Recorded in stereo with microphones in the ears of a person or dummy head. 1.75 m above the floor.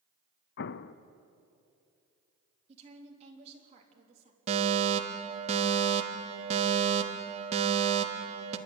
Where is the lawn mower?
No lawn mower in this recording.